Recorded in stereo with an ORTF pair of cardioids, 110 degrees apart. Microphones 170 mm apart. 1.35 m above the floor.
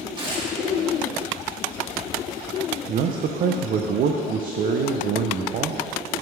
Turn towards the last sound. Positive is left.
turn(degrees=-55)